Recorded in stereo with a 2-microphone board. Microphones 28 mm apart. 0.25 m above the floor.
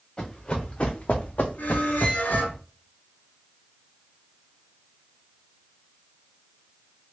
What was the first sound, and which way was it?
Running footsteps, 30° left (ahead or behind).